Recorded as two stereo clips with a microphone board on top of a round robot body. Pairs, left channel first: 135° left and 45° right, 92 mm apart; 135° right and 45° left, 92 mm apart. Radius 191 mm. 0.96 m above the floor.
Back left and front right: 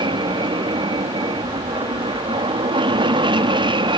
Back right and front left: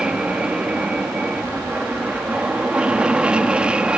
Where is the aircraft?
35° right.